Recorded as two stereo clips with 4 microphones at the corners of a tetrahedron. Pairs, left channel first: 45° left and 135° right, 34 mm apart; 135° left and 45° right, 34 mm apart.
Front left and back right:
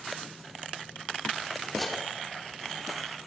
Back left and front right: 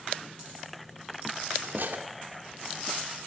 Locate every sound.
1.6 s cutlery clinking: 40° right, 1.6 m